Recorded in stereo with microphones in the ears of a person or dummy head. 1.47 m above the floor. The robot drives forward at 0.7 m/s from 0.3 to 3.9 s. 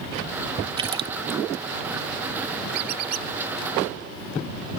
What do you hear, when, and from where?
0.8 s a splash: 30° right (ahead or behind); by 1.4 s 25° right (ahead or behind)
2.7 s a squeak: 60° right (ahead or behind); by 3.3 s 55° right (ahead or behind)